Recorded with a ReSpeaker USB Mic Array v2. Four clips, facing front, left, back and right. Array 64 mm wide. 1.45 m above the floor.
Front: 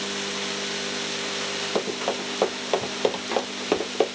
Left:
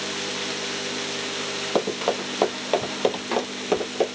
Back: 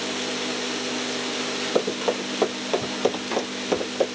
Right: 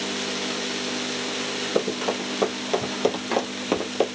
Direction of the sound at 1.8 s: 90° left.